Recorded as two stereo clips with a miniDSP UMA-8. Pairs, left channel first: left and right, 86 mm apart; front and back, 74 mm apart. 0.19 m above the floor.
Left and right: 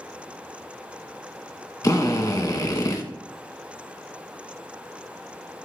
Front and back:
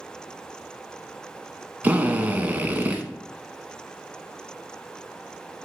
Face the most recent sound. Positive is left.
turn(degrees=120)